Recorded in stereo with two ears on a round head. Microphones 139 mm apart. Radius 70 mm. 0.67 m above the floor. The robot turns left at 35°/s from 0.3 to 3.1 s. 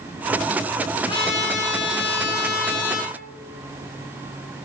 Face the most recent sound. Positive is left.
turn(degrees=75)